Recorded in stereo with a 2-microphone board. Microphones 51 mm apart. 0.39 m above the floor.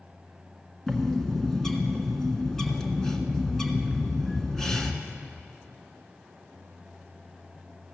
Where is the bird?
10° left (ahead or behind), 1.1 m.